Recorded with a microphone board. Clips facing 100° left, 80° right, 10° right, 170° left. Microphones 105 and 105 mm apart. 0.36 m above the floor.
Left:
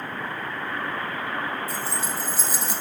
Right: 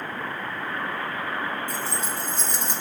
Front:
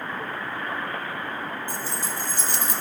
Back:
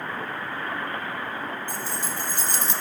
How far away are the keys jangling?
About 2.0 m.